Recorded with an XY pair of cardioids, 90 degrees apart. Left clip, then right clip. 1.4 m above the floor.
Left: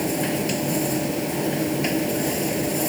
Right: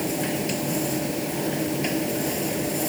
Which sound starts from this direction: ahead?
A machine running, at 0.0 s.